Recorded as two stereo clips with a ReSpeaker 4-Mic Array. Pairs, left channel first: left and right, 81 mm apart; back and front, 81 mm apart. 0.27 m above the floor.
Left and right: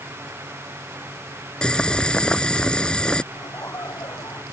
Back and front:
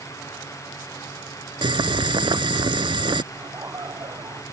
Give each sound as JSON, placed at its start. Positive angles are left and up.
{"t": 1.6, "sound": "boiling", "azimuth_deg": 10}
{"t": 3.3, "sound": "laughter", "azimuth_deg": 45}